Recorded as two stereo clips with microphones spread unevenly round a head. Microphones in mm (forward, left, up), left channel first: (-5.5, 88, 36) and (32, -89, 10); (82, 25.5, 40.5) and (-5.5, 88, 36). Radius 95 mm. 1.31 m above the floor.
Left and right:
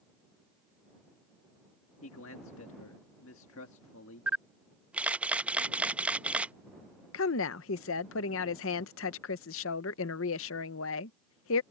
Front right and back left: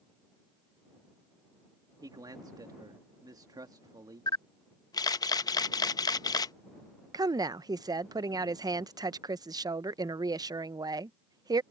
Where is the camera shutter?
10° left.